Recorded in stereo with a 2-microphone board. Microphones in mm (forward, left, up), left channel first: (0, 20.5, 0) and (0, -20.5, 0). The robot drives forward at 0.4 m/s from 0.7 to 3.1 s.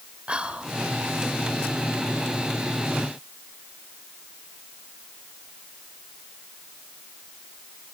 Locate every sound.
0.3 s whispering: 25° right (ahead or behind), 2.5 m